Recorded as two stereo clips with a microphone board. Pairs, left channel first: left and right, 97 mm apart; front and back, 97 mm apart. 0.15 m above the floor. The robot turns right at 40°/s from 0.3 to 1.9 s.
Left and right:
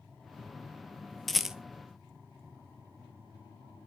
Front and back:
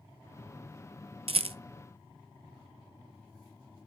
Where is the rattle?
175° left, 0.5 m; by 1.6 s 170° right, 0.5 m.